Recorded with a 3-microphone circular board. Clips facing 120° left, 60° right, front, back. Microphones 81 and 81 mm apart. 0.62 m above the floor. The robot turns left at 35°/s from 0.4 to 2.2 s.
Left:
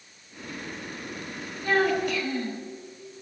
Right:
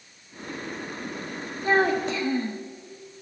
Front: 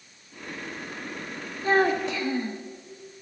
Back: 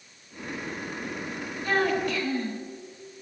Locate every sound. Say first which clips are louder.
1.6 s a child speaking: right 2 dB, front 3 dB; 25° right, 0.7 m; by 2.6 s 45° right, 0.7 m